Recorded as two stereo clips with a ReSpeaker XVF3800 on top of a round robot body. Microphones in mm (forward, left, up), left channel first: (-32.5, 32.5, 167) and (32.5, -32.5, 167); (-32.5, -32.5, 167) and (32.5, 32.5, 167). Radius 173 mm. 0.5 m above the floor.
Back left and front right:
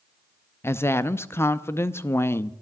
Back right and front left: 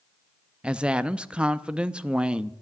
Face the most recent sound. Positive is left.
turn(degrees=115)